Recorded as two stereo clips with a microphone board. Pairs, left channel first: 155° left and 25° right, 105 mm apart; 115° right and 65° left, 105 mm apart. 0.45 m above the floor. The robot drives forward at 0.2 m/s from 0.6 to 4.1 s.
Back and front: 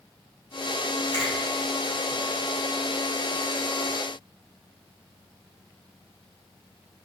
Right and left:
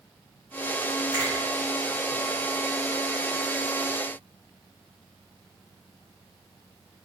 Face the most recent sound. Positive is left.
turn(degrees=145)